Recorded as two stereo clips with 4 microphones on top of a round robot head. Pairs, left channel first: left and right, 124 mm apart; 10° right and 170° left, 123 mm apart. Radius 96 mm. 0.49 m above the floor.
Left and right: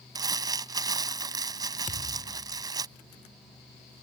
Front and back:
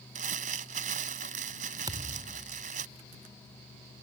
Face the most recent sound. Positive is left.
turn(degrees=110)